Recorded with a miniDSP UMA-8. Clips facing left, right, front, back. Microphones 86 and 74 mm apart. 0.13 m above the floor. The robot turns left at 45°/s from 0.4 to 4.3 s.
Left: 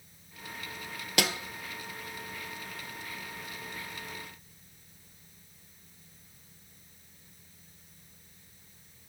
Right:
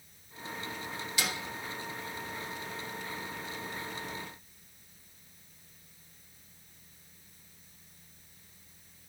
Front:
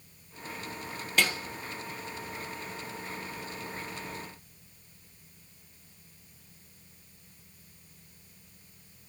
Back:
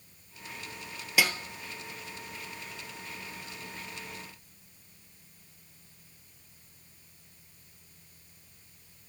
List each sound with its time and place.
1.2 s a snare drum: 100° left, 0.7 m; by 1.3 s 90° left, 0.7 m